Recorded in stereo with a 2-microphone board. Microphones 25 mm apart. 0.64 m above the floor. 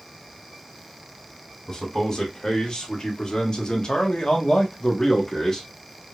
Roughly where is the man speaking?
Left.